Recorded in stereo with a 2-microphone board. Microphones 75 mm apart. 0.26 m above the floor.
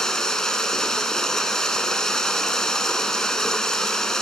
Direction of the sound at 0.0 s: 10° left (ahead or behind).